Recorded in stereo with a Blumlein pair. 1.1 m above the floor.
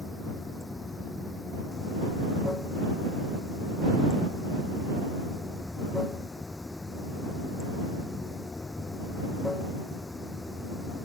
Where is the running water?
10° left.